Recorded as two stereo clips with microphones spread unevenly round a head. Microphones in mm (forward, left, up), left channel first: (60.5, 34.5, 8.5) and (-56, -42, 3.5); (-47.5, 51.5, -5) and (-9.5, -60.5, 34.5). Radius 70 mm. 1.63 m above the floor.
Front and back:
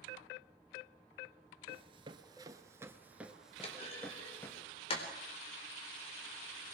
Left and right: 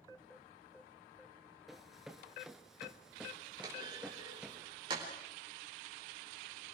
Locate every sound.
1.7 s running footsteps: 130° right, 1.9 m; by 4.6 s 20° right, 1.9 m
3.6 s a clunk: 15° right, 4 m